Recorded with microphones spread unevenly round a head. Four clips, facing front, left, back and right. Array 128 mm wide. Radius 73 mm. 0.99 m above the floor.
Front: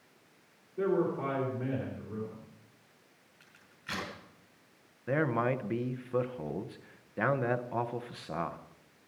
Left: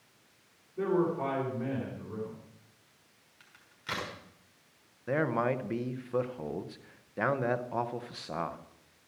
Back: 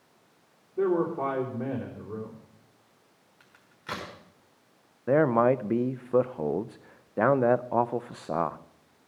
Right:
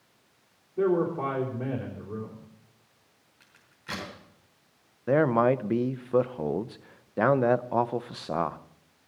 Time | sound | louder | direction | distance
0.8 | a man speaking | right 4 dB, back 4 dB | 150° right | 4 m
3.4 | a crack | left 3 dB, back 5 dB | straight behind | 5.5 m
5.1 | a man speaking | right 7 dB, back 8 dB | 125° right | 0.6 m